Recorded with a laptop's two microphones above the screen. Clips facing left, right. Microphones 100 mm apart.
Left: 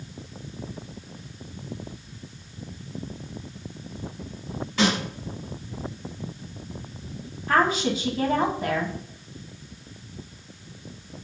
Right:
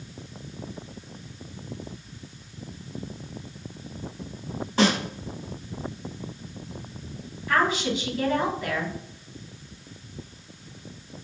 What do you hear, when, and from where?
4.8 s a snare drum: 35° right (ahead or behind), 1.9 m
7.5 s a woman speaking: 40° left (ahead or behind), 1.5 m